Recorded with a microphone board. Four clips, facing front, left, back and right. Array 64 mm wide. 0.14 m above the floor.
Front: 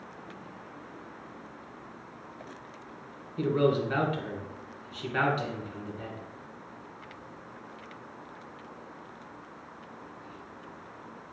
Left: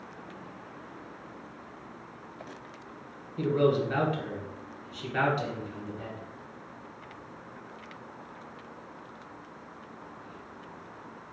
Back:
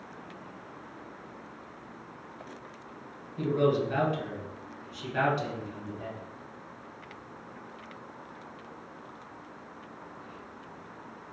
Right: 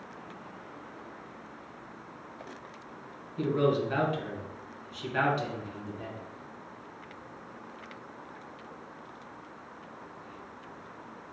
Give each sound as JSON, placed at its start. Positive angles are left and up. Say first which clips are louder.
{"t": 3.4, "sound": "a man speaking", "louder": "left 2 dB, even", "azimuth_deg": 5, "distance_m": 1.4}